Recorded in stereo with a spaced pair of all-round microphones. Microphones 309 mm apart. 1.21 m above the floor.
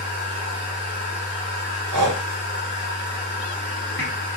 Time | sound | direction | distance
0.0 | a machine running | 35° left (ahead or behind) | 2 m
1.9 | breathing | 80° right | 0.7 m